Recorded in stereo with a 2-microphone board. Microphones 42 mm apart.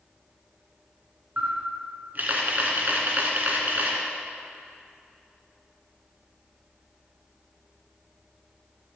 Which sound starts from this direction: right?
A camera shutter, at 1.4 s.